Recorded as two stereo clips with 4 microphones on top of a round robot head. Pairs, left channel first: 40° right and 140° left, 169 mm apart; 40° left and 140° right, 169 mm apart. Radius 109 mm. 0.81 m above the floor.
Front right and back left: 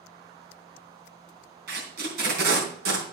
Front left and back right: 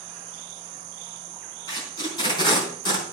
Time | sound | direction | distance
1.7 | tape being pulled | 105° left | 3.5 m